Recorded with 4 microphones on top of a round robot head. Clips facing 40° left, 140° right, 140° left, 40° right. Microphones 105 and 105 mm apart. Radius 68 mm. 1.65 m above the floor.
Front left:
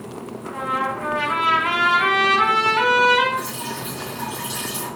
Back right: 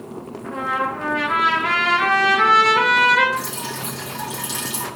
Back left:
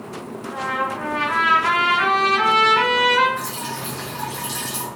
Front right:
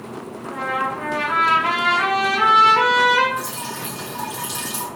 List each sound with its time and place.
0.4 s a trumpet: 120° right, 3 m
3.4 s dripping: 120° right, 2 m